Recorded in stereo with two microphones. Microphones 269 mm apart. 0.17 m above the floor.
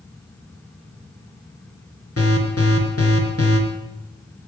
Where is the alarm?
60° left (ahead or behind), 4 m.